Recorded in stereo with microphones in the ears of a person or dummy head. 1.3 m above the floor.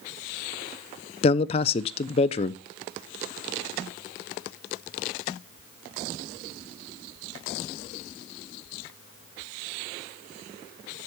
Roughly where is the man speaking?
Left.